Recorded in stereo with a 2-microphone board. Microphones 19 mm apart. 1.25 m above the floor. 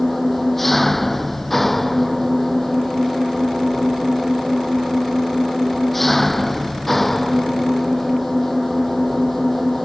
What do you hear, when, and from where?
0.0 s an engine running: 10° left (ahead or behind)